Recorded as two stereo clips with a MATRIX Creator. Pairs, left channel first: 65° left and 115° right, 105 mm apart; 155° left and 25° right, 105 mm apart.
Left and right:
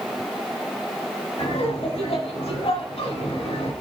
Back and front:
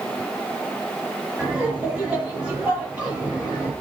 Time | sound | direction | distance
1.4 | laughter | 55° left | 5.5 m